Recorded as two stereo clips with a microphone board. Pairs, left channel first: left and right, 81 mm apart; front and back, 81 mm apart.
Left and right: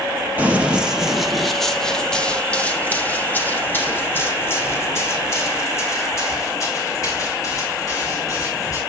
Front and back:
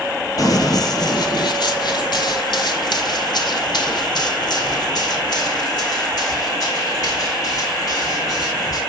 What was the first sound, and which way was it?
Running footsteps, 25° right.